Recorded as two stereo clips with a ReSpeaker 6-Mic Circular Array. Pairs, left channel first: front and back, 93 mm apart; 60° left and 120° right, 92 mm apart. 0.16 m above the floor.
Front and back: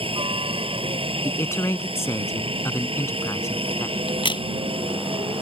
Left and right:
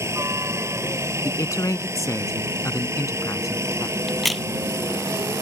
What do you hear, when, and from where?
0.0 s a helicopter: straight behind
1.2 s a man speaking: 40° left
4.1 s a crack: 30° right